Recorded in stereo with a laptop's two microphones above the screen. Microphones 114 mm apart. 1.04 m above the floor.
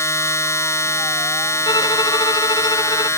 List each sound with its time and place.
0.0 s a machine running: 25° left (ahead or behind)
1.6 s a violin: 40° left (ahead or behind)